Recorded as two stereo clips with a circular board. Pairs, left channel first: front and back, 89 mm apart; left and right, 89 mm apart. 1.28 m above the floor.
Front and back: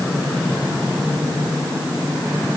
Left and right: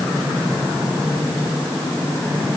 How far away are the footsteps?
I don't hear footsteps.